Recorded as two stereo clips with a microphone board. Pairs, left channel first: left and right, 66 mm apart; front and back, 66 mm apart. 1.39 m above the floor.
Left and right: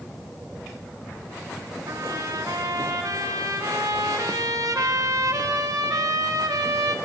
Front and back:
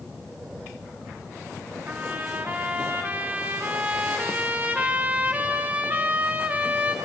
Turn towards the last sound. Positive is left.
turn(degrees=-115)